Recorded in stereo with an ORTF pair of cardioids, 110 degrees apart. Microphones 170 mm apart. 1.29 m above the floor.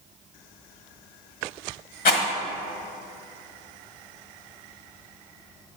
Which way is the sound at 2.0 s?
55° left.